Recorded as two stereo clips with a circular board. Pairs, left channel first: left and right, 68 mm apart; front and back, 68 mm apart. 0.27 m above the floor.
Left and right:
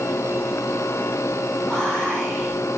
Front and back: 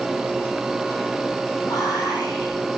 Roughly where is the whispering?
Ahead.